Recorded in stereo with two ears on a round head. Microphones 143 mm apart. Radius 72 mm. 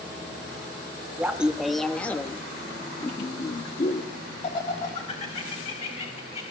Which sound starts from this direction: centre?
Laughter, at 1.2 s.